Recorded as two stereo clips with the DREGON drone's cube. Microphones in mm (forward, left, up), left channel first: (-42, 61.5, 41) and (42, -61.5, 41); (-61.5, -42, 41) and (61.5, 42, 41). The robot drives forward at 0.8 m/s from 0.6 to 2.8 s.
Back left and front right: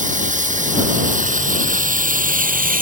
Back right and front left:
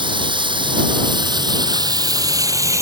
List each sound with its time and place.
0.0 s running water: 25° right; by 2.8 s 35° right